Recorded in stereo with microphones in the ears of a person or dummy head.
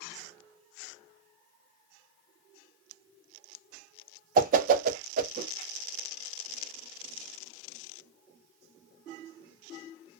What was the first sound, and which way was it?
A whoosh, 40° right (ahead or behind).